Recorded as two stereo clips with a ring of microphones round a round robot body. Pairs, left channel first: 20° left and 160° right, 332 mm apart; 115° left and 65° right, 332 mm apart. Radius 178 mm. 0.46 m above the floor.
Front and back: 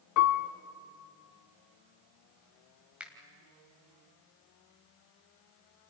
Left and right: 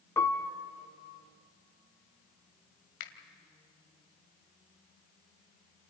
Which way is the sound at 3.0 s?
115° left.